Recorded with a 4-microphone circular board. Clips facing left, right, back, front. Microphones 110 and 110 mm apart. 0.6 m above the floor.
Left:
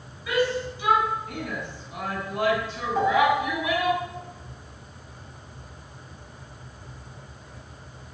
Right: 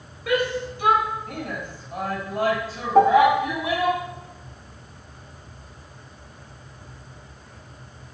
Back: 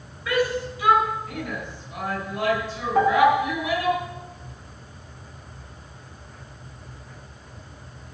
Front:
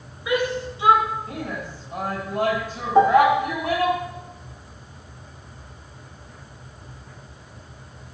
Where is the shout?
70° right, 3.5 m; by 4.0 s 30° right, 6 m.